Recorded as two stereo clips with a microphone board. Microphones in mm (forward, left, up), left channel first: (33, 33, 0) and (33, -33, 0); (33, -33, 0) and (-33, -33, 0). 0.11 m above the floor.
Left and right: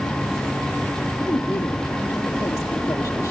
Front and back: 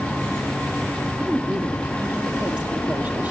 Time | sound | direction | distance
1.2 | a woman speaking | 115° left | 3.5 m